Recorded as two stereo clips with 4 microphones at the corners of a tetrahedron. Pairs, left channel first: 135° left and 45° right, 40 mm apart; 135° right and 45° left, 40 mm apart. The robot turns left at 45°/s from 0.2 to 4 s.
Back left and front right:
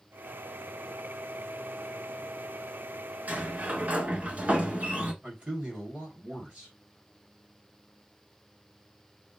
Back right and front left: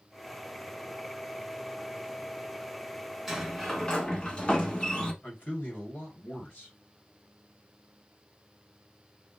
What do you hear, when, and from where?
3.3 s a sliding door: 45° right, 0.9 m; by 5.1 s 75° right, 0.9 m
5.2 s a man speaking: 100° right, 2.5 m